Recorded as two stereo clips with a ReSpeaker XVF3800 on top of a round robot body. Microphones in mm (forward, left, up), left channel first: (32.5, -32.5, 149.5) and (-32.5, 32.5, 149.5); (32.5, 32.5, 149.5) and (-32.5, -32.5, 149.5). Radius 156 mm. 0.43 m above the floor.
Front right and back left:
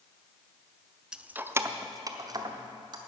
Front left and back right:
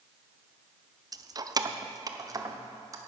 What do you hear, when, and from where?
1.1 s keys jangling: 145° right, 0.6 m; by 3.0 s 175° left, 1.3 m